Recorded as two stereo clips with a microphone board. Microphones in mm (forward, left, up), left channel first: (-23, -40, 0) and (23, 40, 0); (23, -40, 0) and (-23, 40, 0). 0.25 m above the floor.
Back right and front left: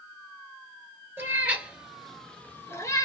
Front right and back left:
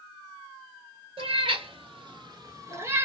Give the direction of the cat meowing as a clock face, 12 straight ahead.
8 o'clock.